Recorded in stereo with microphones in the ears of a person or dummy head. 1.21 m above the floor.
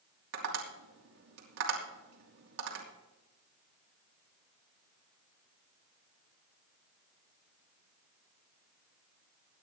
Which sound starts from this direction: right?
Tapping, at 0.3 s.